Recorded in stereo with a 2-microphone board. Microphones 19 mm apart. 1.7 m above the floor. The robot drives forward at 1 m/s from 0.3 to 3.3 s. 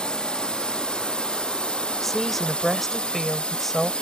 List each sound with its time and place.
0.0 s a drone: 60° left (ahead or behind); by 4.0 s 85° left
2.0 s a woman speaking: 20° left (ahead or behind); by 3.9 s 15° left (ahead or behind)